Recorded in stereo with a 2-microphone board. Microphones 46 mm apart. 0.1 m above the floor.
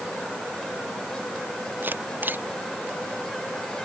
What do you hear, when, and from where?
1.8 s a camera shutter: 50° right (ahead or behind)